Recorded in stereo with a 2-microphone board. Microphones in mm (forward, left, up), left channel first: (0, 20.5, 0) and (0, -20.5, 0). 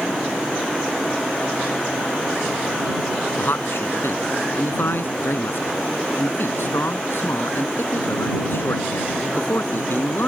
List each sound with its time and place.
3.4 s a man speaking: 65° left (ahead or behind)